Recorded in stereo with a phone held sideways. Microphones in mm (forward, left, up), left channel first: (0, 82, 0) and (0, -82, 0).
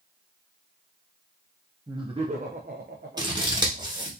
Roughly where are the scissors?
Right.